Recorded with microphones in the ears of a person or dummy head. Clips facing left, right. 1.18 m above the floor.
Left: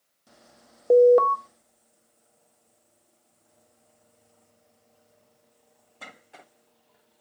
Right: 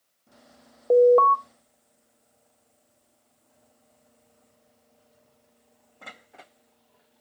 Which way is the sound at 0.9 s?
15° left (ahead or behind).